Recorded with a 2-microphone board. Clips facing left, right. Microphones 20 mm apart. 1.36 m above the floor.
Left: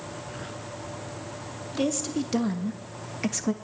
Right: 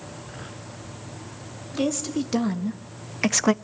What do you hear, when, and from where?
1.7 s a woman speaking: 10° right (ahead or behind), 3 m; by 3.5 s 75° right (ahead or behind), 0.5 m